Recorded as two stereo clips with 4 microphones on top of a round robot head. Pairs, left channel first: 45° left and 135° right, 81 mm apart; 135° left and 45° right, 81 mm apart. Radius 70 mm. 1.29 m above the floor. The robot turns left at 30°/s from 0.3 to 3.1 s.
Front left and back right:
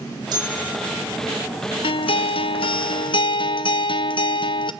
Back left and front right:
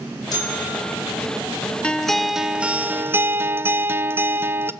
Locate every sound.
0.3 s a bell: straight behind, 7 m; by 1.0 s 160° left, 7 m
1.8 s a guitar: 60° left, 0.8 m; by 4.7 s 20° left, 0.8 m